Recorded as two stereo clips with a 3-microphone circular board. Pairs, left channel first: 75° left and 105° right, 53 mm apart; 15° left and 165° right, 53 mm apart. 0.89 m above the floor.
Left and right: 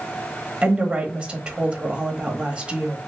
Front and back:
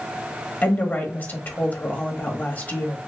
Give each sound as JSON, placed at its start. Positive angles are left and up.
{"t": 0.6, "sound": "a woman speaking", "azimuth_deg": -35, "distance_m": 1.1}